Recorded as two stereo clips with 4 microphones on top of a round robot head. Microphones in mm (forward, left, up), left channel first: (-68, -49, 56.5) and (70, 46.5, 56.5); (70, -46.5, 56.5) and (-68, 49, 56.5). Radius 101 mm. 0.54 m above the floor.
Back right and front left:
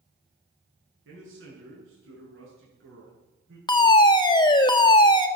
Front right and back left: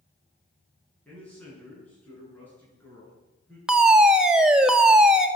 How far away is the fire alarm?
About 1.7 m.